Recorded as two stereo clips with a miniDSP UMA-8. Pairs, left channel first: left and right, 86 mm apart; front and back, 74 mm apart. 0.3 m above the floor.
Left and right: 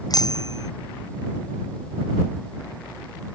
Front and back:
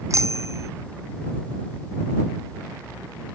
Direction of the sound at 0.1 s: 130° left.